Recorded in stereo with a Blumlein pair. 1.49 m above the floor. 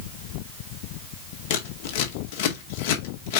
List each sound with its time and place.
1.5 s scissors: 50° left, 2 m